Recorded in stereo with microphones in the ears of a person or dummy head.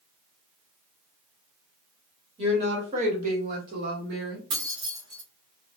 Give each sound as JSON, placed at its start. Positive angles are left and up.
{"t": 2.4, "sound": "a woman speaking", "side_deg": -35, "distance_m": 1.4}
{"t": 4.5, "sound": "keys jangling", "side_deg": -50, "distance_m": 0.8}